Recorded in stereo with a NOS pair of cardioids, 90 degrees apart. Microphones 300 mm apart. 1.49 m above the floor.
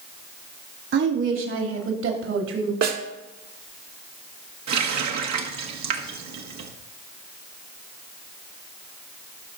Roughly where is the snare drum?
Ahead right.